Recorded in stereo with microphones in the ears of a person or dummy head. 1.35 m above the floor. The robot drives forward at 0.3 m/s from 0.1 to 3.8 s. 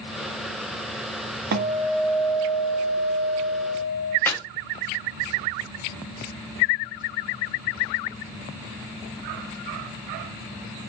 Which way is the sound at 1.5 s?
55° right (ahead or behind).